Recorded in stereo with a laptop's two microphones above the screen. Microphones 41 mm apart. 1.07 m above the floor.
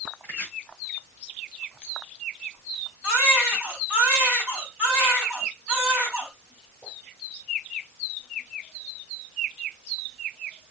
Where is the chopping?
45° right (ahead or behind), 6.5 m.